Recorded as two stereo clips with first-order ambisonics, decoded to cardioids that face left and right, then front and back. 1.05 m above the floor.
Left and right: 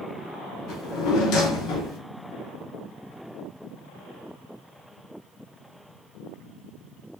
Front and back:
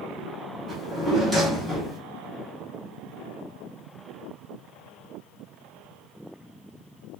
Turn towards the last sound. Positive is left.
turn(degrees=95)